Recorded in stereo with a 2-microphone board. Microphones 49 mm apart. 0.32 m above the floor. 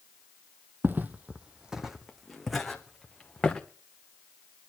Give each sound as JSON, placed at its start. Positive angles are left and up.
{"t": 0.8, "sound": "footsteps", "side_deg": -50, "distance_m": 0.7}